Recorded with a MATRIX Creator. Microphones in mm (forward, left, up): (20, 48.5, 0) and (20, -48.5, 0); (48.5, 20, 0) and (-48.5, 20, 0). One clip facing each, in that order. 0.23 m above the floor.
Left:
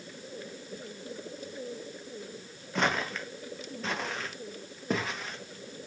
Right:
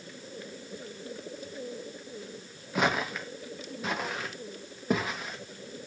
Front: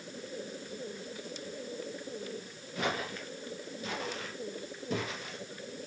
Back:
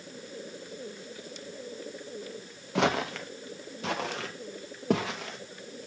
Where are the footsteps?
170° right, 1.5 m.